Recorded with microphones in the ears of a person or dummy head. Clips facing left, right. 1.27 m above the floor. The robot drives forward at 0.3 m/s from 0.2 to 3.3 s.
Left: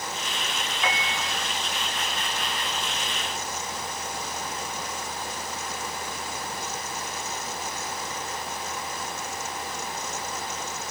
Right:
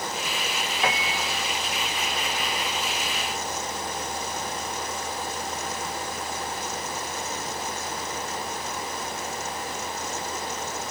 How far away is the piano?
About 0.6 m.